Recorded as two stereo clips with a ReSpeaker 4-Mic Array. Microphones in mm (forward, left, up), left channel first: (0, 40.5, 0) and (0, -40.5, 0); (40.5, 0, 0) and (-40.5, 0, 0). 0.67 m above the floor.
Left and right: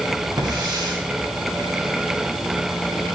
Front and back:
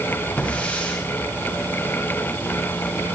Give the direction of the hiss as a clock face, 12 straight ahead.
2 o'clock.